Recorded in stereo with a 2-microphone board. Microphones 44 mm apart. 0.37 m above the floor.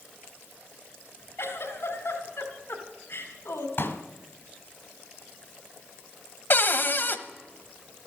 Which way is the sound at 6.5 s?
50° left (ahead or behind).